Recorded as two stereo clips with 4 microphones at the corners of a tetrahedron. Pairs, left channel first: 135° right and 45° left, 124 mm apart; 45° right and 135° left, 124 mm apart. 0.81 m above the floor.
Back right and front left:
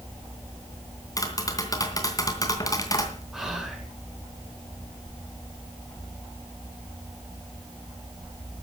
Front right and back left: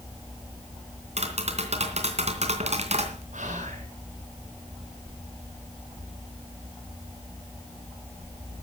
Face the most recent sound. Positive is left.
turn(degrees=130)